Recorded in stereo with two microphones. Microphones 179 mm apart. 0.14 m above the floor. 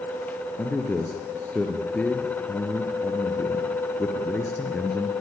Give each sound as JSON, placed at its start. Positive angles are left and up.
{"t": 0.6, "sound": "a man speaking", "side_deg": 10, "distance_m": 3.0}